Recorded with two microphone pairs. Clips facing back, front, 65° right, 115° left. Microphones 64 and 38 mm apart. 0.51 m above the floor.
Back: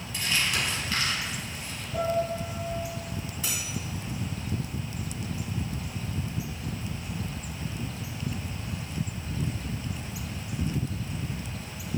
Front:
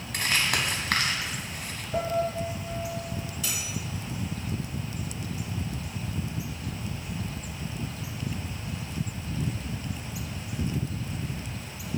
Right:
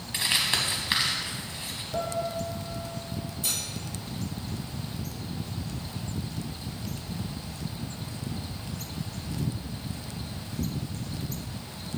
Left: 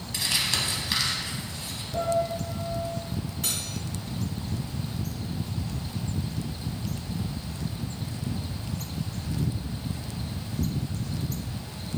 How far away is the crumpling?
About 1.0 m.